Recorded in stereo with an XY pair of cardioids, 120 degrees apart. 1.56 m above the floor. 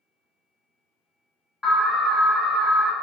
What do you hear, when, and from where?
1.6 s an alarm: 25° left, 1.2 m